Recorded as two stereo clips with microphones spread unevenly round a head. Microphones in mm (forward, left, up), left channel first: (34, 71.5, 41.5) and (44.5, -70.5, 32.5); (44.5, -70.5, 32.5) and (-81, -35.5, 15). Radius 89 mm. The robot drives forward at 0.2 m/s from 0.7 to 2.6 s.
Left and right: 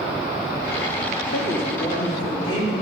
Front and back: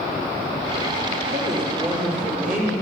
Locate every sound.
1.3 s a woman speaking: 130° left, 2.5 m; by 2.7 s 135° left, 2.5 m